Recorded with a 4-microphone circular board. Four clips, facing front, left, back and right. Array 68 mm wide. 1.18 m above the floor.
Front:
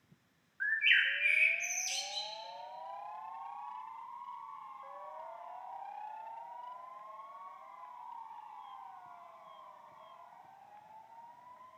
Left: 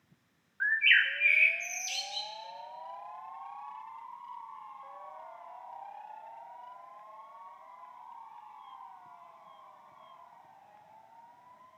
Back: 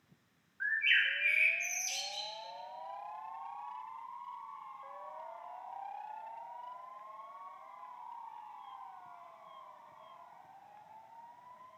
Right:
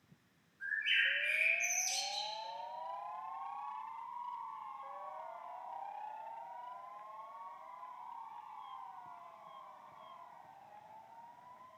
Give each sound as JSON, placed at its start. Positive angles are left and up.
{"t": 0.6, "sound": "a bird", "azimuth_deg": 80, "distance_m": 0.5}